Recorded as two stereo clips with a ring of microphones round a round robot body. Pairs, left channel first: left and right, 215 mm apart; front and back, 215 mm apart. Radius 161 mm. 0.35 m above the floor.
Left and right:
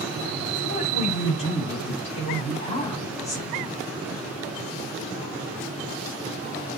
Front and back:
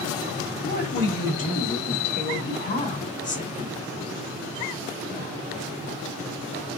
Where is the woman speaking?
30° left, 2.5 m; by 3.7 s 10° left, 1.0 m.